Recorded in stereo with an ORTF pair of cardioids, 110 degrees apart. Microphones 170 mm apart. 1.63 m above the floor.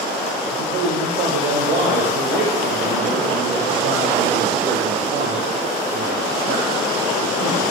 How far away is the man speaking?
About 1.3 m.